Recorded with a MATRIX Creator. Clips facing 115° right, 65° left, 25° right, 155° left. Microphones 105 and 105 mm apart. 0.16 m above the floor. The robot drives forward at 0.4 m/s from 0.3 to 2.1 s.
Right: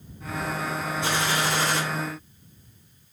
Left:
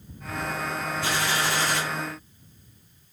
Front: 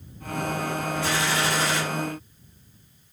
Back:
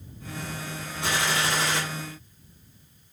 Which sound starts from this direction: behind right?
A gunshot, at 1.0 s.